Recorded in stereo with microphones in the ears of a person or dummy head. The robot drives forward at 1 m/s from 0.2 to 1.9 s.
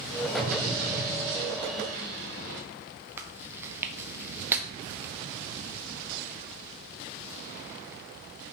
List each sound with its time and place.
0.4 s an explosion: 50° right (ahead or behind), 3 m; by 2.6 s 65° right (ahead or behind), 2.5 m
3.2 s chewing: 10° right (ahead or behind), 0.9 m